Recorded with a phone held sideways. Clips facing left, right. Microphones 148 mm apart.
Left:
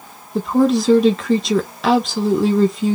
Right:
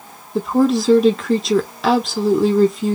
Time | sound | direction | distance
0.3 | a woman speaking | centre (ahead or behind) | 0.7 m